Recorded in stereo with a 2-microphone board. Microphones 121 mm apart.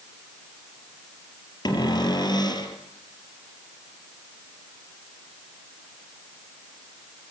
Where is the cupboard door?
35° left (ahead or behind), 2.5 m.